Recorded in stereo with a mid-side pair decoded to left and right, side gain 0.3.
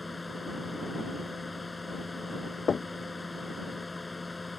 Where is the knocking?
55° left.